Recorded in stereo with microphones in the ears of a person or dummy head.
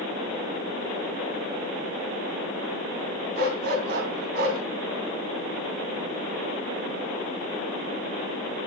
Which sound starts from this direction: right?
A dog barking, at 3.4 s.